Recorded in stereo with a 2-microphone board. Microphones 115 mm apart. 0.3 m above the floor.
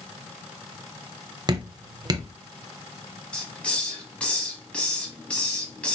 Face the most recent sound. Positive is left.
turn(degrees=10)  # may be behind; listen again after turning